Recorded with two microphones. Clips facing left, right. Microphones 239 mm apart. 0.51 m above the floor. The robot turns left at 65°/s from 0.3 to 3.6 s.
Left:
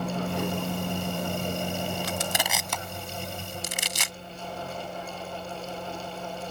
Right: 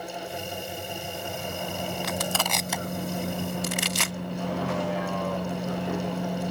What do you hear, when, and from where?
0.0 s a vehicle: 115° left; by 6.5 s 100° right
2.0 s crushing: 35° left (ahead or behind); by 4.2 s 65° right (ahead or behind)